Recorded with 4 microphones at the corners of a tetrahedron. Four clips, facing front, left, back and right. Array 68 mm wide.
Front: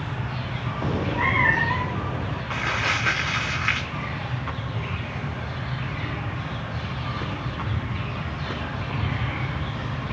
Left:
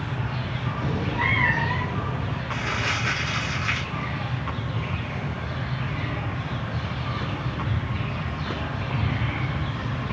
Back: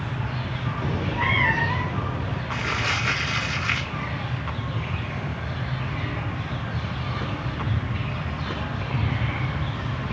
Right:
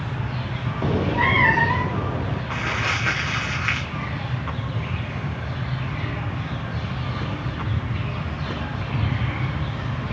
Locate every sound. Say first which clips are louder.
0.8 s a cat meowing: right 5 dB, front 2 dB; 70° right, 0.9 m; by 2.4 s 85° right, 2 m
2.5 s crumpling: right 2 dB, front 1 dB; 50° right, 8 m